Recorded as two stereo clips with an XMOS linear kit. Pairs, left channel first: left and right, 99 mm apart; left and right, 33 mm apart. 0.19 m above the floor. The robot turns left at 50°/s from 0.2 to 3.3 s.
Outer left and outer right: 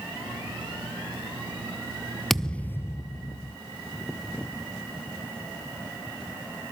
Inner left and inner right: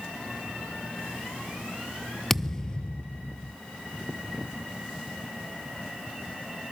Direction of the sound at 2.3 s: Straight behind.